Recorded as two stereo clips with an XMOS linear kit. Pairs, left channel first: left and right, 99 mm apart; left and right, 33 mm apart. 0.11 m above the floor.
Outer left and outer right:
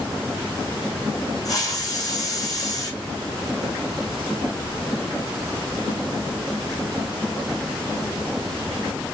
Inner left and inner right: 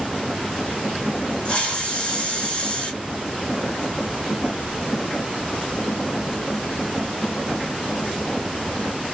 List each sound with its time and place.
1.4 s a hiss: 40° left (ahead or behind), 2.5 m